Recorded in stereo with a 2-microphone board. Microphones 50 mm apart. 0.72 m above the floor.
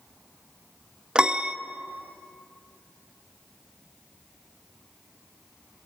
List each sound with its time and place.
1.1 s a piano: 20° right (ahead or behind), 0.6 m